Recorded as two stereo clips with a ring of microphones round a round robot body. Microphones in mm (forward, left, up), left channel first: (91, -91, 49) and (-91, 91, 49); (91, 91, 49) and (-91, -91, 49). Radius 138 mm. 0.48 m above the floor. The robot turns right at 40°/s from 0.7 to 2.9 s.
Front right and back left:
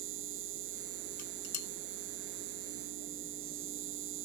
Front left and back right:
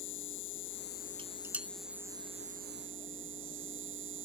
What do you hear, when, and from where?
0.0 s an insect: 90° left; by 4.3 s straight behind
1.2 s dishes clattering: 65° right; by 1.7 s 45° right